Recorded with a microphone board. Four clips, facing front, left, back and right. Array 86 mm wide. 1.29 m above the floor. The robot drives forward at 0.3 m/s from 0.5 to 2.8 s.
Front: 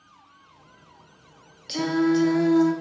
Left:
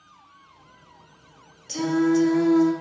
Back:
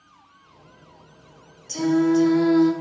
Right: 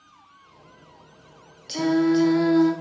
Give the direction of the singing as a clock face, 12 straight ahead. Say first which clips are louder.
Right 1 dB, back 3 dB; 1 o'clock.